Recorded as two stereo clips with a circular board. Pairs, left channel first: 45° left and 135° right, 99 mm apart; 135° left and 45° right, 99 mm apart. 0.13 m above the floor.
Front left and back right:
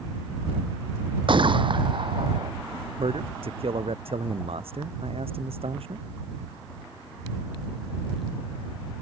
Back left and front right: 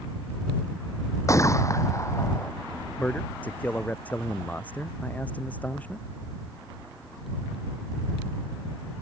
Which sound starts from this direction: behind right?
A man speaking, at 3.0 s.